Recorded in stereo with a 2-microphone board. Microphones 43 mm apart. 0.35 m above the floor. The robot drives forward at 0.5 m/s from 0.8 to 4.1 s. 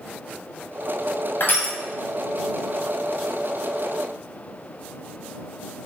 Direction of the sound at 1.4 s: 60° left (ahead or behind).